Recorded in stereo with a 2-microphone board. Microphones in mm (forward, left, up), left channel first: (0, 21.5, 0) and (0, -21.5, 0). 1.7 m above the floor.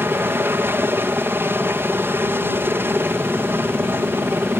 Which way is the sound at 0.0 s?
60° right (ahead or behind).